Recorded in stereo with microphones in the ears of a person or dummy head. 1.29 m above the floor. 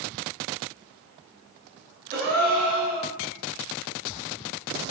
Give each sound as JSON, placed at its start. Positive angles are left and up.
{"t": 2.1, "sound": "a gasp", "side_deg": -40, "distance_m": 0.7}